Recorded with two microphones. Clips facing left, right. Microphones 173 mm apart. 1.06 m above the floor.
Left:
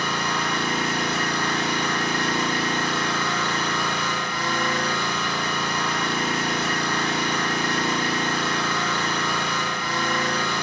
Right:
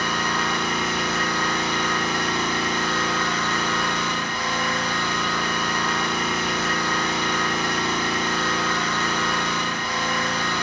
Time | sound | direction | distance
0.0 | an engine running | 50° left (ahead or behind) | 1.8 m